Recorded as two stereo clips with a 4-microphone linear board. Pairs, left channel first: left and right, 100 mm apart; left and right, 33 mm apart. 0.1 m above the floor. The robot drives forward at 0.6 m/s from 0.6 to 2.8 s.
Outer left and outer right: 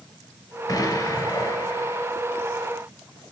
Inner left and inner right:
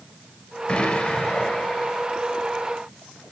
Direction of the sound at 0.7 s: 35° left (ahead or behind).